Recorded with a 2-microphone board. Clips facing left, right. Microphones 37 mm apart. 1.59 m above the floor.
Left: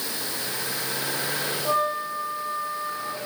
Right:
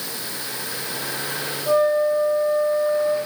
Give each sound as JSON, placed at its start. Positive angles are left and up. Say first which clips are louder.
{"t": 1.6, "sound": "a flute", "louder": "right 8 dB", "side_deg": 25, "distance_m": 1.8}